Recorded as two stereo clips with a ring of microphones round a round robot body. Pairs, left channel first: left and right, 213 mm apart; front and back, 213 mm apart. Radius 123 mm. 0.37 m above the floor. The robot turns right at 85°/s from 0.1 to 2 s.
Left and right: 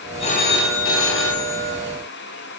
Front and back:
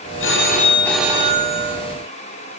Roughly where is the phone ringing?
Ahead left.